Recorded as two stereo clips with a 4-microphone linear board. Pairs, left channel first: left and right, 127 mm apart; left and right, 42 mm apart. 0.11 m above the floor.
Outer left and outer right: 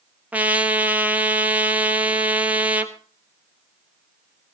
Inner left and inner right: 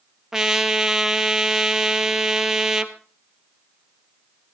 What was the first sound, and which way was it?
A trumpet, 10° right (ahead or behind).